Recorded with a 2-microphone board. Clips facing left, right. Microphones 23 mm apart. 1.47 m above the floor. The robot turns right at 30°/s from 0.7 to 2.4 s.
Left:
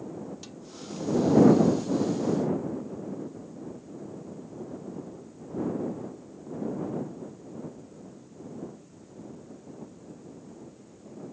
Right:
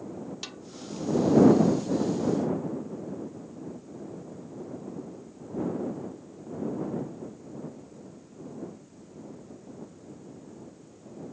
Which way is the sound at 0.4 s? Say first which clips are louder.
Right 4 dB; 45° right (ahead or behind).